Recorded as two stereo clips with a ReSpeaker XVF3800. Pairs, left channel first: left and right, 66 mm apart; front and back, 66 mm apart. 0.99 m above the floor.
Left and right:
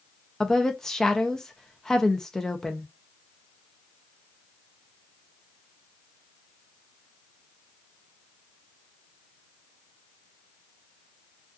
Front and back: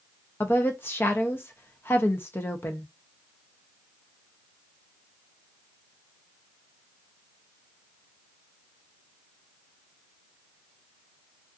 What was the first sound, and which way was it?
A woman speaking, 15° left.